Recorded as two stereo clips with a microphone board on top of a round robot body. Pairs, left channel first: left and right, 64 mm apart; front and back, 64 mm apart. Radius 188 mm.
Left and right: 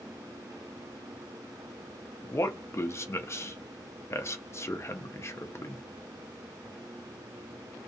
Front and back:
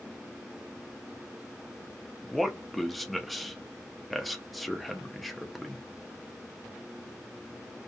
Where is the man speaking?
90° left, 0.7 m.